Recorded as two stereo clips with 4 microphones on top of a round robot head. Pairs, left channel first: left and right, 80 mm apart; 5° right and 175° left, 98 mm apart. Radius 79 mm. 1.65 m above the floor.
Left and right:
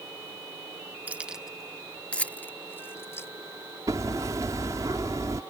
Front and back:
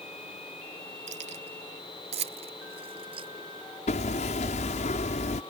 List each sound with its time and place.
1.1 s keys jangling: 160° right; by 3.3 s 145° left
3.9 s hammering: 25° right